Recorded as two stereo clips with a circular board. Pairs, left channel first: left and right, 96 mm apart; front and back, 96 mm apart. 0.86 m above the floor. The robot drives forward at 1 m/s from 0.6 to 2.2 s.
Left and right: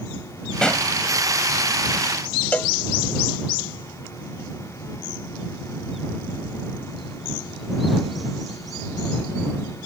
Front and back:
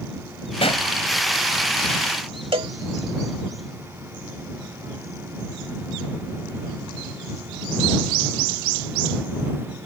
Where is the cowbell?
160° left.